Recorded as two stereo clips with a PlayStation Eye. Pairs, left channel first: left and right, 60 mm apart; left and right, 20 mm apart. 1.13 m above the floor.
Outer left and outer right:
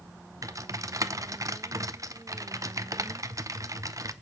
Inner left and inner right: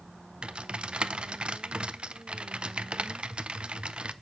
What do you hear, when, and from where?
0.4 s typing on a keyboard: 60° right (ahead or behind), 0.6 m